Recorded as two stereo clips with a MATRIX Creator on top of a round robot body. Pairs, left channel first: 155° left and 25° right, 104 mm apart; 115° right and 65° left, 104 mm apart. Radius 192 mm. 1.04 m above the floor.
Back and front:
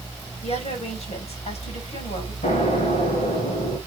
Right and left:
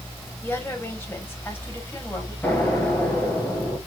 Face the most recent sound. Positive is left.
turn(degrees=170)